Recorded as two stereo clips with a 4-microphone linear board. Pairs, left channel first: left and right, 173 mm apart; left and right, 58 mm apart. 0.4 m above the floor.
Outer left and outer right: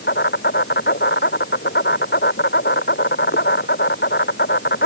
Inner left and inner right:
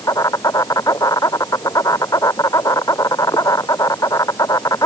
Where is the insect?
85° left.